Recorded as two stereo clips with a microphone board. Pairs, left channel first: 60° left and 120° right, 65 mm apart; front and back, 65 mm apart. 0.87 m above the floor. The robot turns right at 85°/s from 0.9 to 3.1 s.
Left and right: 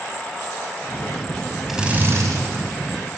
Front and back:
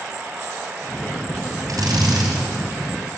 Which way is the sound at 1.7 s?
155° left.